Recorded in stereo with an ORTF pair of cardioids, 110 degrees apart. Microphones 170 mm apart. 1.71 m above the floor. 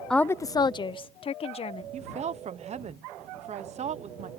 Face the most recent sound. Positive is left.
turn(degrees=-40)